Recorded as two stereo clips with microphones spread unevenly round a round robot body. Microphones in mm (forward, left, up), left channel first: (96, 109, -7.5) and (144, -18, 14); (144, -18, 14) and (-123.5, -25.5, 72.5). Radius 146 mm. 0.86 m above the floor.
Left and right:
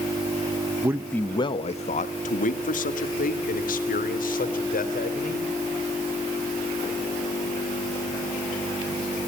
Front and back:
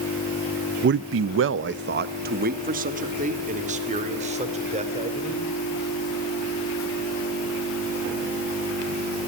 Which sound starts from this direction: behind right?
A man speaking, at 0.8 s.